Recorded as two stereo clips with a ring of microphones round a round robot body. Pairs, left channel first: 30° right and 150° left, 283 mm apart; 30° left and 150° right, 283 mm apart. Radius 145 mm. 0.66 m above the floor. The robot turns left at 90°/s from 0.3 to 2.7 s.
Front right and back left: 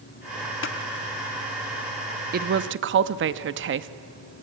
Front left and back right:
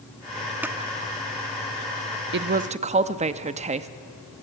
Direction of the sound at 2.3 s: 170° right.